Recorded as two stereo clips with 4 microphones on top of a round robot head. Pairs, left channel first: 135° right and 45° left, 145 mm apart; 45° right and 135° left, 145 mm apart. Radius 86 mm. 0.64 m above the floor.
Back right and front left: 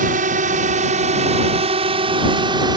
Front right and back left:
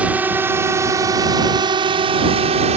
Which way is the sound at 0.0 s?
55° left.